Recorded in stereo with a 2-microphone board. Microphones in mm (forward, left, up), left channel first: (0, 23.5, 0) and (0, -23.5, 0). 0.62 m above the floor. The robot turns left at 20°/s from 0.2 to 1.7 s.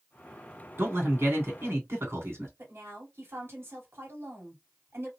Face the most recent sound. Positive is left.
turn(degrees=-60)  # may be behind; listen again after turning